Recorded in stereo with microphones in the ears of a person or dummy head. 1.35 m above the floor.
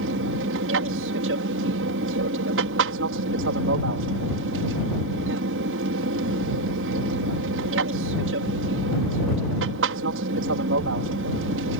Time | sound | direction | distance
0.0 | an aircraft | 60° right (ahead or behind) | ?